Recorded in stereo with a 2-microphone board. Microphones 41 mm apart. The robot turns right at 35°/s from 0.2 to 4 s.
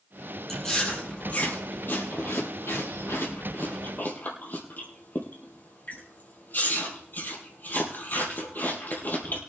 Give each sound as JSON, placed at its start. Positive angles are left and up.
{"t": 0.5, "sound": "chewing", "side_deg": 5, "distance_m": 4.5}